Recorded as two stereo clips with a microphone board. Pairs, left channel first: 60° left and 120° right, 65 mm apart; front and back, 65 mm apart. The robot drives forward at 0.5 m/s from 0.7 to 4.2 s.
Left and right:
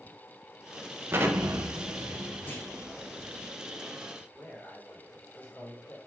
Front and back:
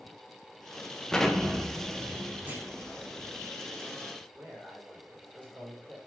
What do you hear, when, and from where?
1.1 s an explosion: 80° right, 0.9 m; by 3.5 s 145° right, 1.4 m
2.5 s a clunk: 120° left, 1.5 m
4.3 s a man speaking: 120° left, 3 m